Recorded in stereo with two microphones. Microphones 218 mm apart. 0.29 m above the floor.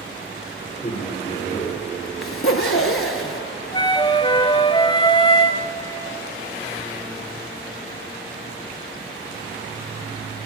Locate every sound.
0.6 s a man speaking: 30° left (ahead or behind), 4.5 m; by 1.8 s 40° left (ahead or behind), 5 m
2.2 s a zipper: 75° left (ahead or behind), 0.8 m
3.7 s a flute: 20° left (ahead or behind), 0.6 m